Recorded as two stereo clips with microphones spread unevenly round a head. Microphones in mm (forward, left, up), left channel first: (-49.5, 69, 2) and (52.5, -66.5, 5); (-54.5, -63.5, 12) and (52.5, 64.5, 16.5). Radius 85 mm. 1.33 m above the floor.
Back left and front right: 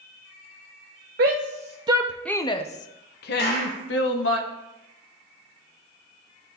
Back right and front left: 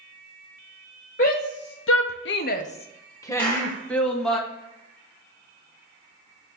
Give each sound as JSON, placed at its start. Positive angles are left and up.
{"t": 1.2, "sound": "a shout", "azimuth_deg": -90, "distance_m": 0.8}
{"t": 3.4, "sound": "a clap", "azimuth_deg": 145, "distance_m": 4.0}